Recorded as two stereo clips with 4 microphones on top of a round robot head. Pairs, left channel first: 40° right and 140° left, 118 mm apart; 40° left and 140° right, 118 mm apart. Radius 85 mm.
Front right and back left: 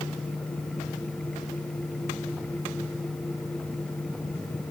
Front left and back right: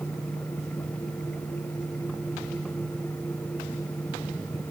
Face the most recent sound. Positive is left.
No sound to turn to.